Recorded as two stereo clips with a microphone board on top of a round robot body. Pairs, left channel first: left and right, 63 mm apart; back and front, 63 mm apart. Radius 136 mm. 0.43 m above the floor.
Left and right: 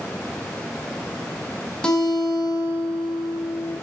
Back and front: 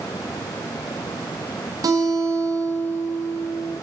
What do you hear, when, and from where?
1.8 s a guitar: 15° left, 3.5 m